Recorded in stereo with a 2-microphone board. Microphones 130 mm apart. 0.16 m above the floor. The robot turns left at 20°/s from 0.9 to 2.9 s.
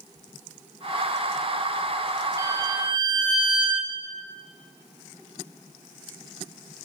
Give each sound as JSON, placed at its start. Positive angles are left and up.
{"t": 2.4, "sound": "a violin", "side_deg": -20, "distance_m": 4.5}